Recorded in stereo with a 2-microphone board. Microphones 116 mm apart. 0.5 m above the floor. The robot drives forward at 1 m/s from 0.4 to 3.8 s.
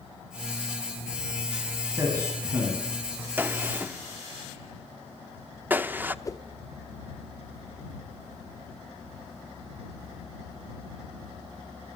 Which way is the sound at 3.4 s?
15° right (ahead or behind).